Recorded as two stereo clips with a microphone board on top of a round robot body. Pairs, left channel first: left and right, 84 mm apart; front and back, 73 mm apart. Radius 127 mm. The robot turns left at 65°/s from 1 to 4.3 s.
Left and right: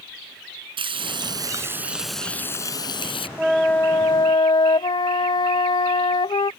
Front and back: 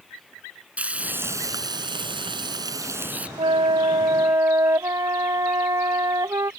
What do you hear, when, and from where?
0.8 s frying: 110° right; by 3.3 s 105° left
3.4 s a flute: 175° right; by 6.5 s 125° left